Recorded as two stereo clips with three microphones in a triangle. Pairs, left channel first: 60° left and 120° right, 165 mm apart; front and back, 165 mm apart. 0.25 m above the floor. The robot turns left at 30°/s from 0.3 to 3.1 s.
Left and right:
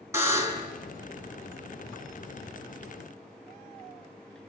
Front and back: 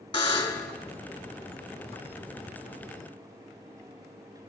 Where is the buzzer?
55° right, 2 m; by 0.7 s 70° right, 2 m.